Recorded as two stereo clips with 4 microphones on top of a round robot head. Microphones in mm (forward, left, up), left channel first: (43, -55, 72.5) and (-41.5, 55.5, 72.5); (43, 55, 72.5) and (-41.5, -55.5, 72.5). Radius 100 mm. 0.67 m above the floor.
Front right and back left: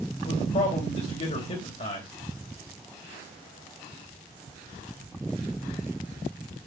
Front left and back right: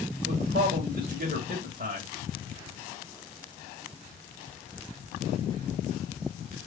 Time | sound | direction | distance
0.2 | a man speaking | 95° right | 3.5 m